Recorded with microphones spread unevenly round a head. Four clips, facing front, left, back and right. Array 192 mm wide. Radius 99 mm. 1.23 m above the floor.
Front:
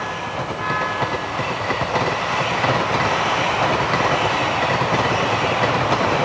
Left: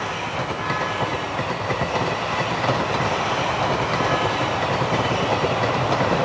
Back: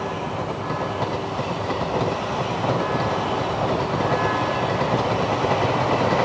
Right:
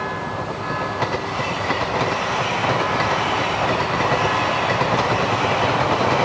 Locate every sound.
Only background noise.